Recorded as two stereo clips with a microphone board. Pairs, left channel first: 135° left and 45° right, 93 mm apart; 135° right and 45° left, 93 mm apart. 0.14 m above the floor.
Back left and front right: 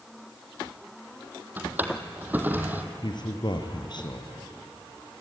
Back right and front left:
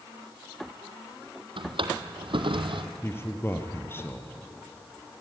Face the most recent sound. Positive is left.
turn(degrees=165)